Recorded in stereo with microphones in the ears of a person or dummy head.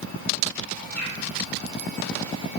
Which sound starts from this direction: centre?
A bird, at 0.9 s.